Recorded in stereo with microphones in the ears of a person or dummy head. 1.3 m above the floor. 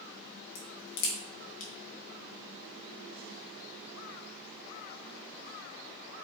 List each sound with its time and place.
0.6 s a crack: 70° left (ahead or behind), 2.5 m